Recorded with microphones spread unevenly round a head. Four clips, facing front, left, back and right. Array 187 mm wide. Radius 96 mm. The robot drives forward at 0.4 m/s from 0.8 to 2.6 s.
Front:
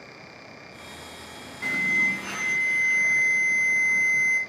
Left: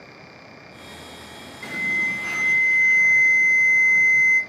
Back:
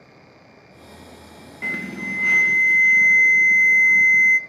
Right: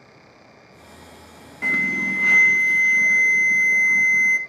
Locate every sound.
1.6 s an alarm: 105° right, 1.6 m; by 4.4 s 125° right, 1.7 m